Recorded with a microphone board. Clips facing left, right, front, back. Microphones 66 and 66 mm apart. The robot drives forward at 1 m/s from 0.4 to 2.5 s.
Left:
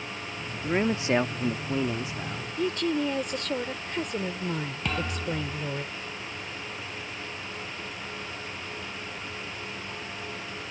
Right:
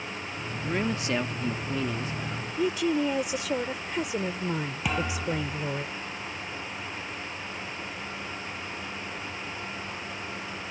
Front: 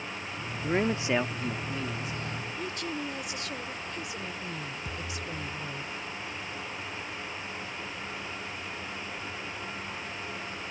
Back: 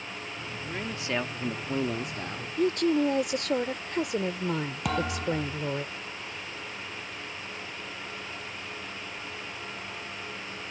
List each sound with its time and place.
0.6 s a man speaking: 20° left; by 2.5 s 170° left
2.6 s a woman speaking: 170° right
4.8 s a thud: 170° right